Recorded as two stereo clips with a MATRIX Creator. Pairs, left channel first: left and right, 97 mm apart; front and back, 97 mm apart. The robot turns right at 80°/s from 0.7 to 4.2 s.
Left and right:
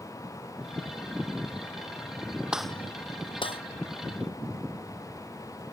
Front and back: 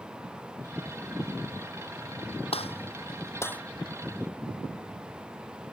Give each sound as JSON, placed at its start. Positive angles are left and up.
{"t": 2.5, "sound": "a gunshot", "azimuth_deg": -10}